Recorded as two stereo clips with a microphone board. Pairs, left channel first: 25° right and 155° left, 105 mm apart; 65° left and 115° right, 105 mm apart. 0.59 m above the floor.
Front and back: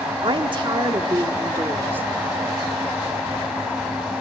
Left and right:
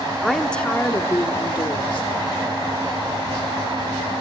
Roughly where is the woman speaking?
Behind.